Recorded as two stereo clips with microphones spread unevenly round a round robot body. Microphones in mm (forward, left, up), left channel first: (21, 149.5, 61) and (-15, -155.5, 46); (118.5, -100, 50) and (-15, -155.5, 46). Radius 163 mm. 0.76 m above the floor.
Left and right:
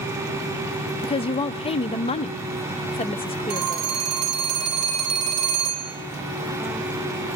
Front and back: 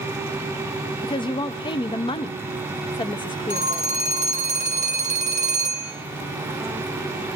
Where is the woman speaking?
25° left, 0.7 m.